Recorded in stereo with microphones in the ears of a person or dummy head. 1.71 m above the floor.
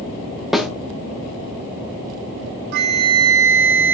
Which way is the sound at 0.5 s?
Centre (ahead or behind).